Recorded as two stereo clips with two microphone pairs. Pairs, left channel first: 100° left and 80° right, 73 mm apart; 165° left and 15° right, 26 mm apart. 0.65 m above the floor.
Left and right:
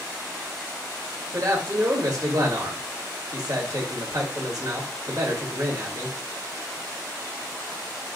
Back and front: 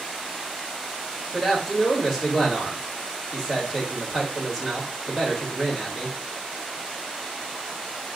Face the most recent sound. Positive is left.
turn(degrees=-105)